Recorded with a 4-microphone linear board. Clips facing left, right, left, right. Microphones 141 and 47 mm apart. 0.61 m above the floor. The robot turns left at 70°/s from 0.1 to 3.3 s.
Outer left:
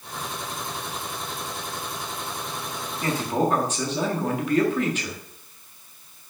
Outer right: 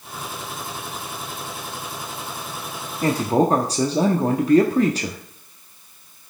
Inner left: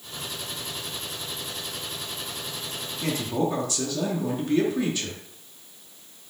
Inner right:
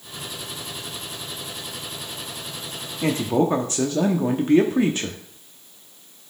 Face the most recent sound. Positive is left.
turn(degrees=-35)  # may be behind; listen again after turning